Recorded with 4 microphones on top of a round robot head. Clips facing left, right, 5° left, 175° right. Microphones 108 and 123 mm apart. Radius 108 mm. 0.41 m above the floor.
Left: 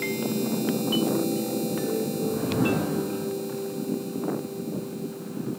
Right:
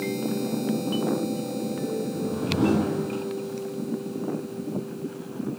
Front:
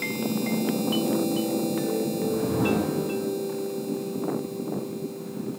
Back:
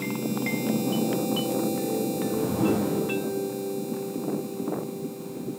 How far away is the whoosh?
About 6 m.